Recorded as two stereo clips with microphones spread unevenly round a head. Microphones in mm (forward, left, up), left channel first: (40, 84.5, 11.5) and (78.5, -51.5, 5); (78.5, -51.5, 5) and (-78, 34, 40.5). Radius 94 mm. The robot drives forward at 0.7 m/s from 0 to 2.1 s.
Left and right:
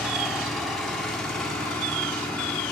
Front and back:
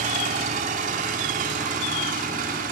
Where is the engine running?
160° right, 3 m; by 2.7 s 165° right, 4.5 m.